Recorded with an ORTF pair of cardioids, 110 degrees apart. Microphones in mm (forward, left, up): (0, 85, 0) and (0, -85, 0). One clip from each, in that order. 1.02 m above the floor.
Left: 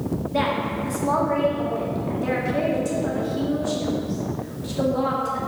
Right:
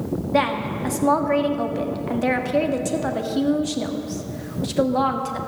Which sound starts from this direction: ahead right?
A woman speaking, at 0.3 s.